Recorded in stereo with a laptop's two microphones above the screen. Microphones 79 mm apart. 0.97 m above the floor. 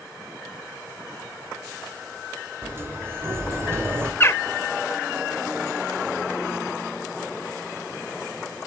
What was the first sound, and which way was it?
A sliding door, 30° right (ahead or behind).